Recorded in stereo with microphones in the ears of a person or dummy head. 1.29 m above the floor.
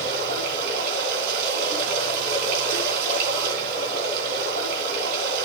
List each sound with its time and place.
0.0 s running water: 55° right (ahead or behind), 4 m